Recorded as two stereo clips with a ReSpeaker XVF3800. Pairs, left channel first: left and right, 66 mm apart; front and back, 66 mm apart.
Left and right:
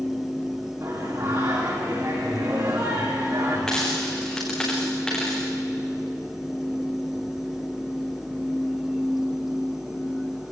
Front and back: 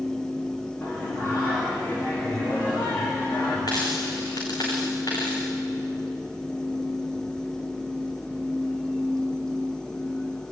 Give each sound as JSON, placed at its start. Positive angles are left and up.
{"t": 0.8, "sound": "singing", "azimuth_deg": -60, "distance_m": 9.0}
{"t": 3.7, "sound": "a dropped coin", "azimuth_deg": 10, "distance_m": 5.5}